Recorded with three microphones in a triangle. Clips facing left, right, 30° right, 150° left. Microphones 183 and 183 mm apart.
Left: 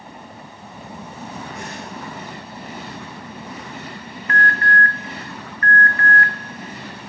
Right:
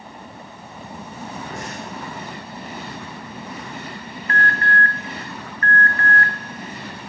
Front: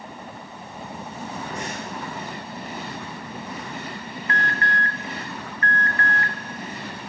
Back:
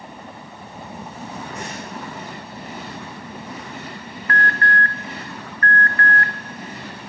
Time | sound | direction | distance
1.5 | breathing | 85° right | 8.5 m
4.3 | an alarm | 75° right | 0.9 m